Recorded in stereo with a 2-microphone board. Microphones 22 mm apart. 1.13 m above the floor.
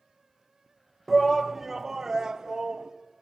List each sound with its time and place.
1.1 s a shout: 5° left (ahead or behind), 0.8 m; by 2.9 s 40° right (ahead or behind), 1.5 m